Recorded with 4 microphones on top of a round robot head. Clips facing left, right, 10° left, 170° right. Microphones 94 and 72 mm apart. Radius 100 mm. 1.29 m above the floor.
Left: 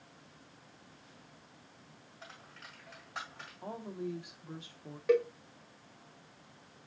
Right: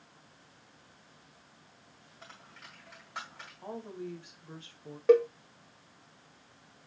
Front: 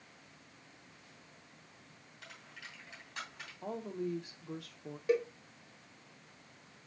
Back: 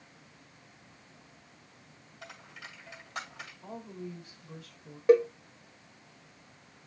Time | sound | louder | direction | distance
2.2 | a dropped coin | even, back 5 dB | straight behind | 1.8 m
3.6 | a woman speaking | left 1 dB, front 5 dB | 10° left | 1.5 m
5.1 | a cowbell | right 6 dB, back 10 dB | 140° right | 0.6 m